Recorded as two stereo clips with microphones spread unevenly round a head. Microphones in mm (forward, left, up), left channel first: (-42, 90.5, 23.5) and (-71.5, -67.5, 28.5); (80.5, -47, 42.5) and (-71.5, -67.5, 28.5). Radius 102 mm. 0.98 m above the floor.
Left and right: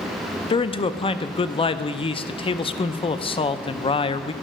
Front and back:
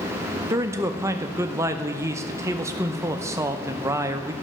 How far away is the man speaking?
About 0.5 m.